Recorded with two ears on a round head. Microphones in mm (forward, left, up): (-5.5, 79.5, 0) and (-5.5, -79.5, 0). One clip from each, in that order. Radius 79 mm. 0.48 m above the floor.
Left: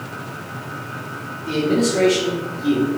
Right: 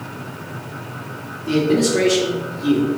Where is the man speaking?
20° right (ahead or behind), 1.1 m.